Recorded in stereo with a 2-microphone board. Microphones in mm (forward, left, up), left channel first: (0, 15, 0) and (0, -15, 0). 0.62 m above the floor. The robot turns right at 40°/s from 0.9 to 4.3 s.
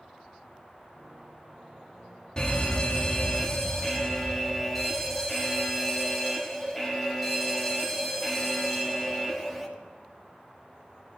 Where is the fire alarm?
25° left (ahead or behind), 1.8 m; by 9.7 s 5° left (ahead or behind), 1.8 m.